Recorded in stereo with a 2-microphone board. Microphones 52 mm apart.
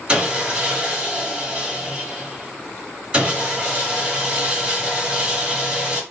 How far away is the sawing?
About 1.7 m.